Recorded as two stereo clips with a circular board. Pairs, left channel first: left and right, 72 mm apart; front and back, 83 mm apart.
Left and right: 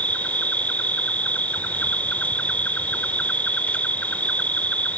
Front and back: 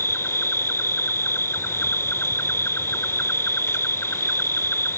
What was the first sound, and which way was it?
An insect, 35° left.